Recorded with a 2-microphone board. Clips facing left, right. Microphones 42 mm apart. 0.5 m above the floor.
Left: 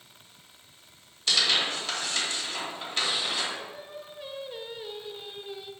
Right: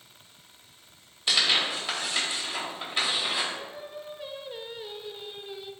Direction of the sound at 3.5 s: 5° right (ahead or behind).